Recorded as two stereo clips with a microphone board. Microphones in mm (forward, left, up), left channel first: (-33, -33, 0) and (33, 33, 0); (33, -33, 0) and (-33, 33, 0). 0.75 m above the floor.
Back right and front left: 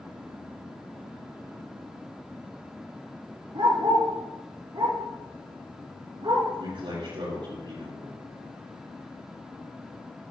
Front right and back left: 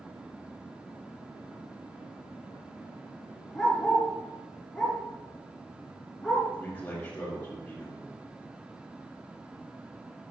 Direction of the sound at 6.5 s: 30° left.